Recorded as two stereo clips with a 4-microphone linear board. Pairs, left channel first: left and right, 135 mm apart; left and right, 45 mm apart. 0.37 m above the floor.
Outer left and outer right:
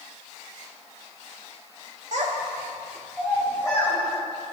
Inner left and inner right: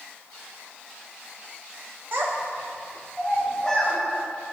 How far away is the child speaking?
About 1.1 m.